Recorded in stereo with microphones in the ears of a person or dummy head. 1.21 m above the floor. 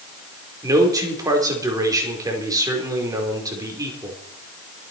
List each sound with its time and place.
0.6 s a man speaking: 20° right (ahead or behind), 5 m